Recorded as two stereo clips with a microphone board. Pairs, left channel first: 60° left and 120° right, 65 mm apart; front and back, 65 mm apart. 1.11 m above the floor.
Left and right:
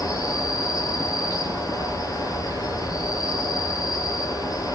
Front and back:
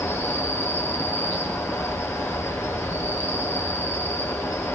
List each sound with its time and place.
0.0 s an insect: 50° left, 9 m